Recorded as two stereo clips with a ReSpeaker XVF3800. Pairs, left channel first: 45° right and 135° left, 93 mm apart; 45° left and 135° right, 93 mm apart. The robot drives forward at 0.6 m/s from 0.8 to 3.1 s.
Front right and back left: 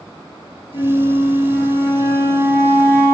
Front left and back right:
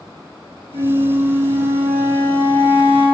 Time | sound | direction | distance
0.7 | a flute | 85° right | 4 m